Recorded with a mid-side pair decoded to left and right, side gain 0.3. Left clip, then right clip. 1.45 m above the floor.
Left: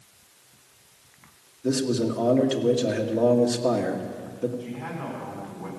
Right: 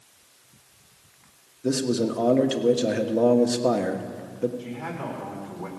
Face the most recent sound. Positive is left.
turn(degrees=-70)